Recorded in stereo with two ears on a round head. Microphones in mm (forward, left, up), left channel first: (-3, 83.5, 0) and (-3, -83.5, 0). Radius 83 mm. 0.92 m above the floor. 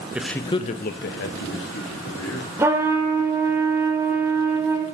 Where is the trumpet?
15° right (ahead or behind), 1.2 m.